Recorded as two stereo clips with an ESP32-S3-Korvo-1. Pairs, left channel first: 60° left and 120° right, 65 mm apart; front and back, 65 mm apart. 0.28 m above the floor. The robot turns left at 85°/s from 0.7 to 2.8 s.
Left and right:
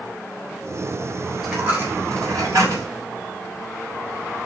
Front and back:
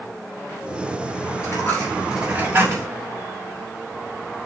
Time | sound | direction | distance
1.4 | a dropped coin | 35° right | 8 m